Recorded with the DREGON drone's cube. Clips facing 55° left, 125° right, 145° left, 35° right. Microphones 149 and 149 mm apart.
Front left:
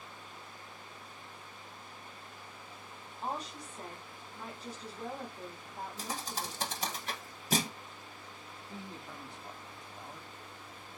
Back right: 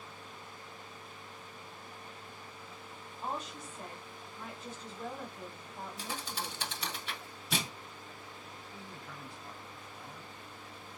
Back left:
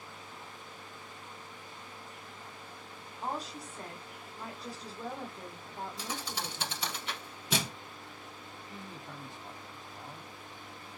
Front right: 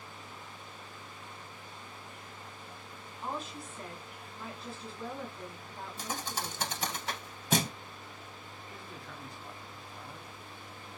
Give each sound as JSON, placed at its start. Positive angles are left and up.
{"t": 3.2, "sound": "a woman speaking", "azimuth_deg": 125, "distance_m": 1.4}
{"t": 6.0, "sound": "a thud", "azimuth_deg": 10, "distance_m": 0.6}
{"t": 8.7, "sound": "a man speaking", "azimuth_deg": 100, "distance_m": 1.0}